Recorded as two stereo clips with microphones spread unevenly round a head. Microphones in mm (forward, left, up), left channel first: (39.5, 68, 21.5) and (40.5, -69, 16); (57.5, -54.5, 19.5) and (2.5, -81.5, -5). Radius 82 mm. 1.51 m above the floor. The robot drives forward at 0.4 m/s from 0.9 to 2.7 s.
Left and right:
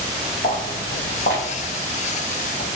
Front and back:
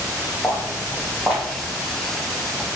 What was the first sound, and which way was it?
Footsteps, 90° left.